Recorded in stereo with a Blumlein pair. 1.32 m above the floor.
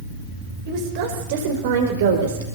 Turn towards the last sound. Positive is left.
turn(degrees=-60)